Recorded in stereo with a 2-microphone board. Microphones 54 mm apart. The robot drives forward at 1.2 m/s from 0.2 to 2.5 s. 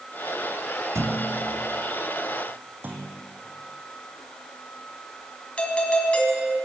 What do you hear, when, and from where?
0.9 s a thud: 65° right (ahead or behind), 1.7 m; by 1.6 s 45° right (ahead or behind), 2 m
2.8 s a clunk: 35° right (ahead or behind), 3 m
5.6 s a doorbell: 20° left (ahead or behind), 3.5 m